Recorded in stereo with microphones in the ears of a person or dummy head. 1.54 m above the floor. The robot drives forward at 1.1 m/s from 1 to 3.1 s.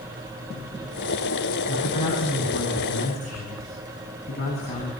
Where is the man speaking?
30° left (ahead or behind), 10 m.